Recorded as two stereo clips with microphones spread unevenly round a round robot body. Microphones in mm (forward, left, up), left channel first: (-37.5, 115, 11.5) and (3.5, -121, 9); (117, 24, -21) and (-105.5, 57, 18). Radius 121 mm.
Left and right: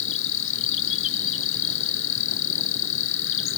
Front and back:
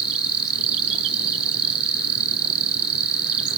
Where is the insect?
140° left.